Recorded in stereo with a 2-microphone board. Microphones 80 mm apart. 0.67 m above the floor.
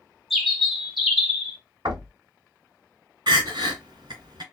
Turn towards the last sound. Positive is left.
turn(degrees=-70)  # may be behind; listen again after turning